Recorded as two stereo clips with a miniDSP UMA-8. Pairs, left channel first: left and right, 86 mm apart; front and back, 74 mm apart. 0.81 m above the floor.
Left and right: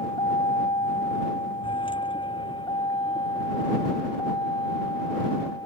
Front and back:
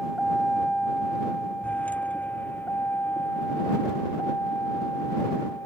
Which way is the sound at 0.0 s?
90° left.